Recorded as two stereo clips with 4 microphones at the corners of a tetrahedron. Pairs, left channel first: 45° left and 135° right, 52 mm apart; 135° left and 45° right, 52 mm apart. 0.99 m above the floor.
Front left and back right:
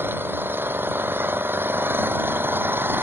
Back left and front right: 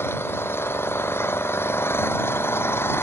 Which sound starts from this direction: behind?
An engine running, at 0.0 s.